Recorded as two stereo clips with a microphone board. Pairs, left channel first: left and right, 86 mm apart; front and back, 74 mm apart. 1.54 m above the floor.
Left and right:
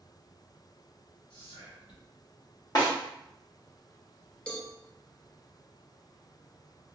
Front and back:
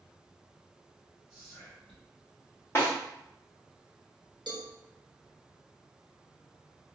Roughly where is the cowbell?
Behind.